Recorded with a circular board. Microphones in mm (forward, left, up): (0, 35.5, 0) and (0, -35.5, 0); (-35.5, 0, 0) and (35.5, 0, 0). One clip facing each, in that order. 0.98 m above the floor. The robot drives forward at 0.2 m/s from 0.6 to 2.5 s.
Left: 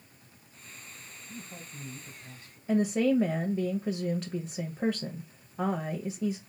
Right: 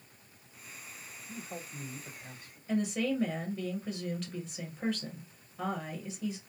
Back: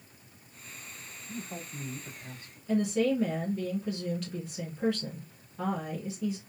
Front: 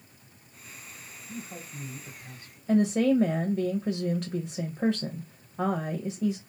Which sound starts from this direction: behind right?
A man speaking, at 1.3 s.